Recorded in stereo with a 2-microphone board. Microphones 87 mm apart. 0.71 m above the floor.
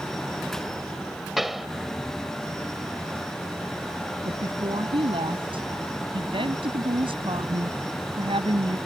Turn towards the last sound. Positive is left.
turn(degrees=-80)